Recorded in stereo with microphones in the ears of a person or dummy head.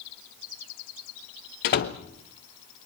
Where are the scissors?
I don't hear scissors.